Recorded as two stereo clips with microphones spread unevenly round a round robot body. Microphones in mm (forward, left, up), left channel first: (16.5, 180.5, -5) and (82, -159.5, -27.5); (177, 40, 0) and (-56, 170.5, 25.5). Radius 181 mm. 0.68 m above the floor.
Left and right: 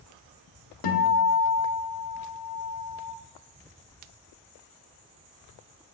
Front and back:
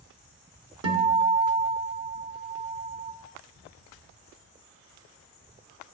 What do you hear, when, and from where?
0.8 s a guitar: 130° left, 1.4 m